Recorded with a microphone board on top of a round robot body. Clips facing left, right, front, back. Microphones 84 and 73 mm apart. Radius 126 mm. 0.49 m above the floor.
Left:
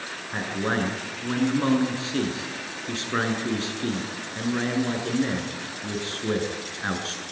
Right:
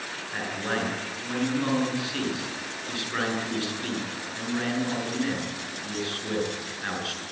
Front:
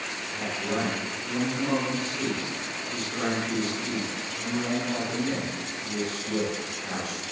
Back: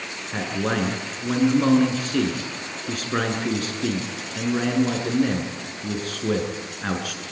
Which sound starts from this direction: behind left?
A man speaking, at 0.3 s.